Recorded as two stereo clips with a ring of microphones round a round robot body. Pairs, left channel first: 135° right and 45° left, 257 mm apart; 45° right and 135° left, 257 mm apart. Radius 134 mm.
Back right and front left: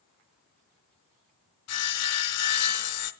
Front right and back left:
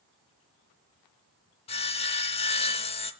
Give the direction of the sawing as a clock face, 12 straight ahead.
4 o'clock.